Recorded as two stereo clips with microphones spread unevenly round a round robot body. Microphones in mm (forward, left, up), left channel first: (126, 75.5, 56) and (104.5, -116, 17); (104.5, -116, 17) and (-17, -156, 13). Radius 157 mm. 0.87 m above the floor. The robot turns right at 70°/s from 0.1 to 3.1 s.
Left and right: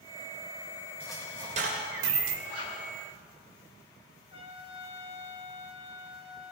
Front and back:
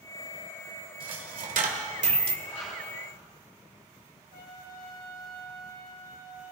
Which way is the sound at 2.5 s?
80° left.